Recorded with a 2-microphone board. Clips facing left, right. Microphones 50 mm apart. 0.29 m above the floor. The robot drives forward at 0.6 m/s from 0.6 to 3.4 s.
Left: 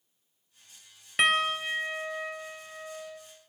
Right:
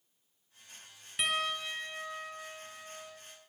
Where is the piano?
55° left (ahead or behind), 1.2 m; by 3.2 s 30° left (ahead or behind), 2 m.